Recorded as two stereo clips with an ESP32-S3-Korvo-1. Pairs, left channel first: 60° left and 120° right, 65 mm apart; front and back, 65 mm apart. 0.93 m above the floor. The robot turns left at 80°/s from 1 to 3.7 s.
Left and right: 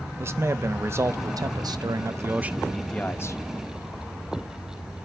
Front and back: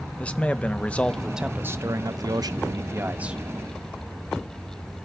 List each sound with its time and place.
0.2 s a man speaking: 70° right, 0.8 m; by 3.4 s 100° left, 0.8 m